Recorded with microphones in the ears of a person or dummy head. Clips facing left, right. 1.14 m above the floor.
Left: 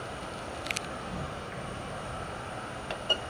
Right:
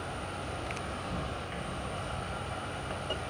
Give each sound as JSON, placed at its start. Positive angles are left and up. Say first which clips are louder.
{"t": 0.0, "sound": "an insect", "louder": "even", "side_deg": 0, "distance_m": 0.8}